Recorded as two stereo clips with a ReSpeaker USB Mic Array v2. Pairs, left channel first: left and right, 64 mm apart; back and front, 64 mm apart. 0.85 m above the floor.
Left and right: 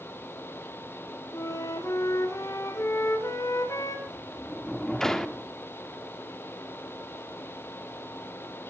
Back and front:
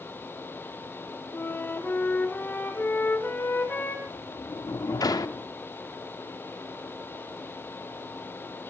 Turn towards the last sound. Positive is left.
turn(degrees=175)